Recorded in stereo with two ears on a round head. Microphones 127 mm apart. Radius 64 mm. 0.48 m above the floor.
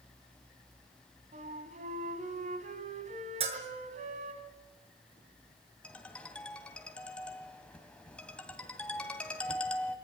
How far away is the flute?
About 3 m.